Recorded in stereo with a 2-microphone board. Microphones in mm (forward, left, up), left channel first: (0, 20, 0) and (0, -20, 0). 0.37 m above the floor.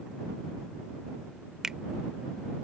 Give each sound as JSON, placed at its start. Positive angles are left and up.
{"t": 1.6, "sound": "a finger snap", "side_deg": -15}